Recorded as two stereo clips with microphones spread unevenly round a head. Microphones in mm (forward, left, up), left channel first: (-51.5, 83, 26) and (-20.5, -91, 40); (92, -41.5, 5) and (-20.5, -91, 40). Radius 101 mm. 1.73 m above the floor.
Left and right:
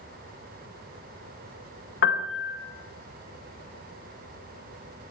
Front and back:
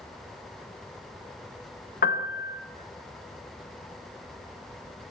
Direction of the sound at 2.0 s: 60° left.